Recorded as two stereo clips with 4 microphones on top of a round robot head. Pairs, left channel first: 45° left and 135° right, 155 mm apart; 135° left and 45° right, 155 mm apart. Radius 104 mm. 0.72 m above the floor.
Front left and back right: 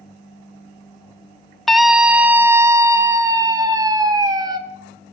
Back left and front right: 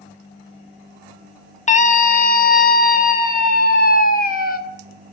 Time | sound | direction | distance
1.7 | a scream | 135° left | 0.9 m